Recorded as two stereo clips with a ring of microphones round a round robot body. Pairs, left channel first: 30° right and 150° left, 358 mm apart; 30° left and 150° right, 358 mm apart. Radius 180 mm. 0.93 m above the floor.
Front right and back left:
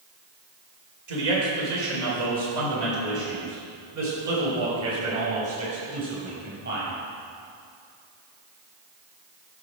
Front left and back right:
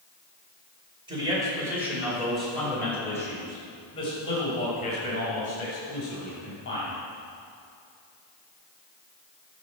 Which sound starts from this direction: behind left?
A man speaking, at 1.1 s.